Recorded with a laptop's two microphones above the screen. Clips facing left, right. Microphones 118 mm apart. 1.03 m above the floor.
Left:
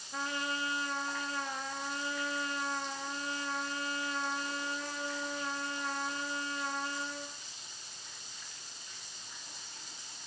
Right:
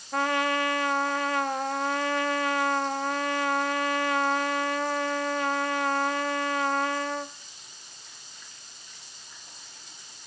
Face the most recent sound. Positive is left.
turn(degrees=-70)  # may be behind; listen again after turning